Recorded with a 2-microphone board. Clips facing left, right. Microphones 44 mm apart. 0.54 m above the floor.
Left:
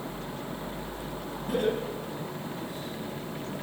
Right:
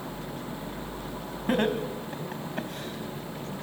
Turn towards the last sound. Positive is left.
turn(degrees=-70)  # may be behind; listen again after turning